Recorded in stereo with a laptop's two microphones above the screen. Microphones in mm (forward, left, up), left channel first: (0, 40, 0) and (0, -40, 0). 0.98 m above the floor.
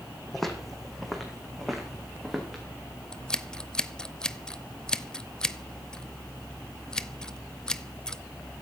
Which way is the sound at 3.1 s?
10° left (ahead or behind).